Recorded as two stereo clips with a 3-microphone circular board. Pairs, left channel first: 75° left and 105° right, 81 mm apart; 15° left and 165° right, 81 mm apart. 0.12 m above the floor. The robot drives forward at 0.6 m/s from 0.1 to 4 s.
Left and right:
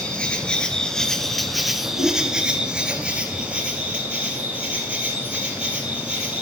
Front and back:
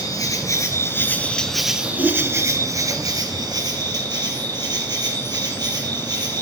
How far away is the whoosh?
About 5 m.